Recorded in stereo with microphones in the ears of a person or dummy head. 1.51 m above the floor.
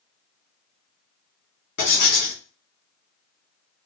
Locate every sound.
1.8 s writing: 50° left (ahead or behind), 1.5 m